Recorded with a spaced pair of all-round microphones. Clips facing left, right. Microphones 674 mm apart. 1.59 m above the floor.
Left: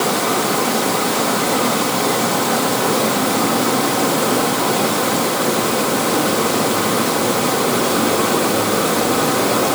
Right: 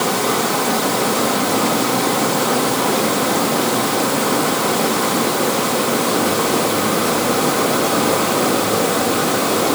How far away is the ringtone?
I don't hear a ringtone.